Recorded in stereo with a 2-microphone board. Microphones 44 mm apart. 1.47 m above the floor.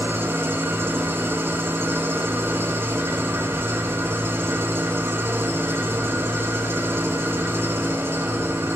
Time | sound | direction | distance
0.0 | an engine running | 75° right (ahead or behind) | 4 m